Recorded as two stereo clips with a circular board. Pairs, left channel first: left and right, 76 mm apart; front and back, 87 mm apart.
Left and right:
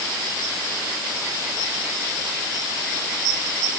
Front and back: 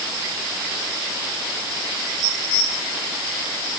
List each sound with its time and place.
Only background noise.